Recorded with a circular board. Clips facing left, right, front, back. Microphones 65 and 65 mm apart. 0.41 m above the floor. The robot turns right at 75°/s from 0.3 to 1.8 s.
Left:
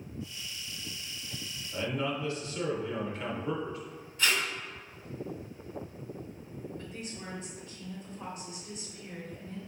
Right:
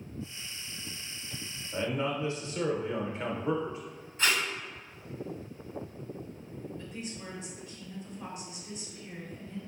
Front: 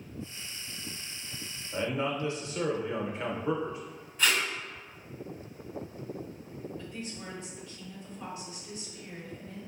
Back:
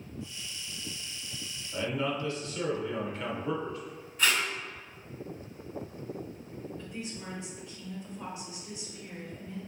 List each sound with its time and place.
1.7 s a man speaking: 55° right, 0.8 m; by 3.8 s 45° right, 0.8 m
4.2 s tape being pulled: 90° right, 1.5 m
6.8 s a woman speaking: 115° left, 1.7 m